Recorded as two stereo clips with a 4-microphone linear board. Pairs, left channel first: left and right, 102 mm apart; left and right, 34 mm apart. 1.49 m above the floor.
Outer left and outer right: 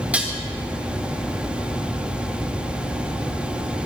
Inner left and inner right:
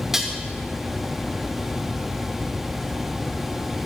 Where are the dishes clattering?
15° right (ahead or behind), 1.3 m.